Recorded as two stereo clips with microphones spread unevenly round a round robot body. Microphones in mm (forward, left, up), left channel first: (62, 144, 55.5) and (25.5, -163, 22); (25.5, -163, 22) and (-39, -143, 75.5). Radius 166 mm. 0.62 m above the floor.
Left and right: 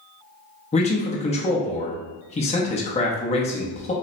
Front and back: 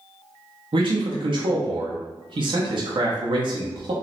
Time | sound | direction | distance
0.7 | a man speaking | 140° left | 0.8 m